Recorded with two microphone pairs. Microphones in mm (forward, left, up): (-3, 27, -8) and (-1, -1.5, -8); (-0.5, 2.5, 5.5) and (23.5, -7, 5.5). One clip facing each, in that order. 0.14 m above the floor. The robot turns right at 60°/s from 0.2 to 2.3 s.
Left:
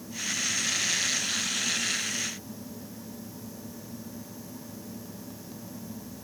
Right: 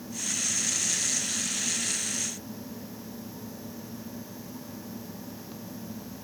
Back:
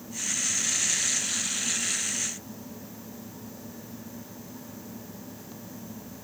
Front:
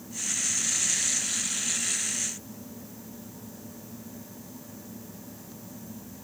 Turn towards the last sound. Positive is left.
No sound to turn to.